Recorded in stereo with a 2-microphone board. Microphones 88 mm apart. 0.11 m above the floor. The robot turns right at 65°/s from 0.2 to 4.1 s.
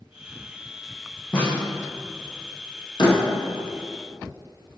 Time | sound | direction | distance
1.3 | a snare drum | 10° left (ahead or behind) | 2.5 m
3.0 | a door slam | 65° left (ahead or behind) | 2.5 m